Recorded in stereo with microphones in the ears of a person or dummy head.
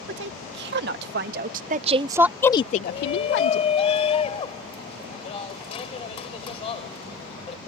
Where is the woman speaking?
65° right (ahead or behind); by 3.7 s 80° left.